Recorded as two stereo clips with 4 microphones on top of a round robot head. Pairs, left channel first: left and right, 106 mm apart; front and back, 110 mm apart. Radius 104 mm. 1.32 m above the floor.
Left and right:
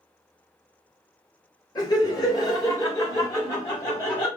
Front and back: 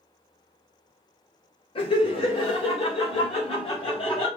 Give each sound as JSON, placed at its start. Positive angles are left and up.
{"t": 1.8, "sound": "laughter", "azimuth_deg": 40, "distance_m": 1.5}